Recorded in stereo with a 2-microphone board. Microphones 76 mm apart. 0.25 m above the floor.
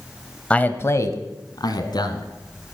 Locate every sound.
0.5 s a man speaking: 15° left (ahead or behind), 1.0 m; by 2.3 s 70° left (ahead or behind), 2.5 m